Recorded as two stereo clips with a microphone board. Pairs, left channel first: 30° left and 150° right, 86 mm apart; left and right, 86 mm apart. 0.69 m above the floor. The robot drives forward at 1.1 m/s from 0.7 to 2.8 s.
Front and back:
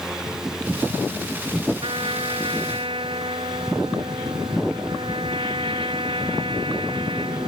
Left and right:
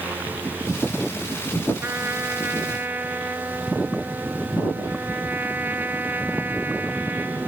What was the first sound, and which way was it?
A trumpet, 155° right.